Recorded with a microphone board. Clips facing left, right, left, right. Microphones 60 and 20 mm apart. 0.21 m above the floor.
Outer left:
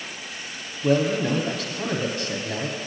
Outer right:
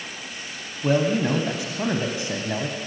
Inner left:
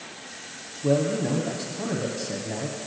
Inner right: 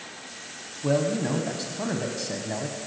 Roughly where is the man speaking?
Centre.